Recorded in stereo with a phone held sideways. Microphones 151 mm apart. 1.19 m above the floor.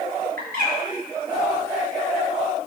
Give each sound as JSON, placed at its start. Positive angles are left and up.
{"t": 0.4, "sound": "a bird", "side_deg": -80, "distance_m": 6.0}